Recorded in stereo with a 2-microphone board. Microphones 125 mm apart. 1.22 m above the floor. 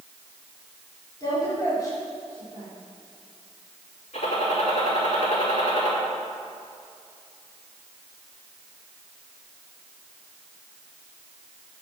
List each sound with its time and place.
1.2 s a woman speaking: 30° left (ahead or behind), 4 m
4.1 s a gunshot: 70° left (ahead or behind), 3 m